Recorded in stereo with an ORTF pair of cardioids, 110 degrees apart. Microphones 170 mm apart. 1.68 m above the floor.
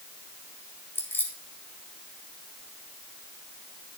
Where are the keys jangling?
15° left, 2 m.